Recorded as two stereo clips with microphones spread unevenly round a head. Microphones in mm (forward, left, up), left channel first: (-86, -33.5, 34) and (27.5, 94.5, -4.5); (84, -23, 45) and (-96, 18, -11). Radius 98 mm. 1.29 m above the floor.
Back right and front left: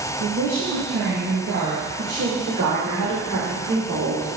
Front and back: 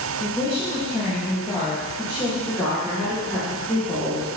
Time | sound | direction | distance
0.2 | a woman speaking | 70° left | 1.9 m
2.5 | a woman speaking | 75° left | 4 m